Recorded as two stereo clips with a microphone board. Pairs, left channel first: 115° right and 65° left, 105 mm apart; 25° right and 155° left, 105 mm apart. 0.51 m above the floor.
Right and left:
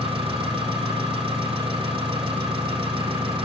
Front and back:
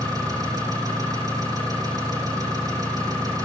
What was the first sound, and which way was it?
An engine running, 105° left.